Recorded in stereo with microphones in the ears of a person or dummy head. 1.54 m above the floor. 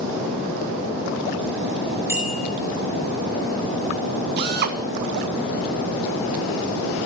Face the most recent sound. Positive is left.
turn(degrees=-50)  # may be behind; listen again after turning